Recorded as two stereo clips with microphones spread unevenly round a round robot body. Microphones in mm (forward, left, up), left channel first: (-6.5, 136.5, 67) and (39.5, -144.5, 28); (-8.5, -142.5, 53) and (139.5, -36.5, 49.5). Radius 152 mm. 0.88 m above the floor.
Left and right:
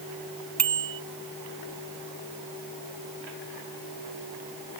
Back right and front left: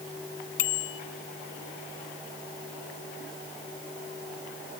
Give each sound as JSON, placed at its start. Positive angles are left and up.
{"t": 0.6, "sound": "a bicycle bell", "azimuth_deg": -175}